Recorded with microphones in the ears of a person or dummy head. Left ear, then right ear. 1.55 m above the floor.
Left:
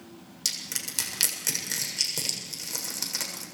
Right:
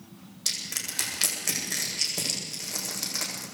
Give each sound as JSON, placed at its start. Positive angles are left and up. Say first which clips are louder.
{"t": 0.5, "sound": "crushing", "louder": "right 1 dB", "side_deg": 85, "distance_m": 7.0}